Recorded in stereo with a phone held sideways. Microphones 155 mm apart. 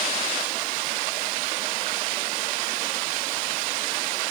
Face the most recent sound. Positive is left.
No sound to turn to.